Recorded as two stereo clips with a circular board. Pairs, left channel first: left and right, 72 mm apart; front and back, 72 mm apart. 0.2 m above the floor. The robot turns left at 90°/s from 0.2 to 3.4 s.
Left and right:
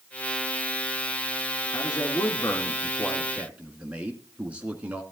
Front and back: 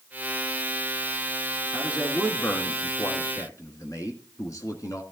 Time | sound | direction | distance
1.7 | a man speaking | 130° left | 2 m